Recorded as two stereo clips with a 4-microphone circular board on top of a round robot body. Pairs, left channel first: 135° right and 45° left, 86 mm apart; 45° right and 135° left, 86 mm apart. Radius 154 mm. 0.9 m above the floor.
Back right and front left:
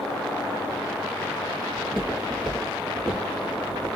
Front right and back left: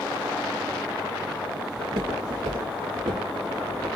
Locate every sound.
1.8 s footsteps: 150° left, 1.2 m; by 3.9 s 135° left, 2 m